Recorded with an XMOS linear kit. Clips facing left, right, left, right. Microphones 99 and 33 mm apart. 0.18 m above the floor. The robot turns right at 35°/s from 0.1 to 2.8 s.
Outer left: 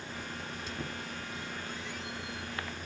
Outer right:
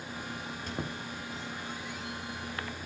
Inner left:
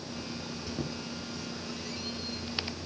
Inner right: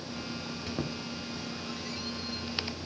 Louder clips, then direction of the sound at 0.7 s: Outer right 4 dB, inner right 1 dB; 55° right (ahead or behind).